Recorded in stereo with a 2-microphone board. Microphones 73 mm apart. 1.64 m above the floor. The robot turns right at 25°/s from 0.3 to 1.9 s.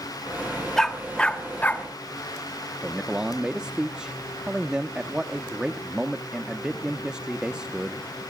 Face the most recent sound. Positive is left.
turn(degrees=-10)  # may be behind; listen again after turning